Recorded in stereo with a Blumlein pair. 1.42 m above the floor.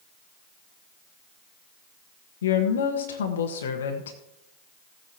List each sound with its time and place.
2.4 s a woman speaking: 65° left, 1.2 m